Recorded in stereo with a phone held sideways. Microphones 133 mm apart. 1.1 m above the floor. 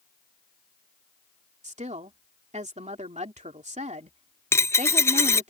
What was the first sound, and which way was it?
A woman speaking, 70° right (ahead or behind).